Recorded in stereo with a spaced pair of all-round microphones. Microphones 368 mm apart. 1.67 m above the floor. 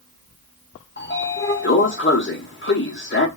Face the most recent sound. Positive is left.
turn(degrees=30)  # may be behind; listen again after turning